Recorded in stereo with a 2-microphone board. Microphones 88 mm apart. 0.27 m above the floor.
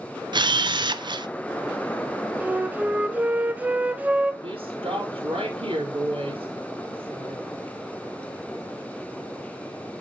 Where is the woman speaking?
75° right (ahead or behind), 4 m.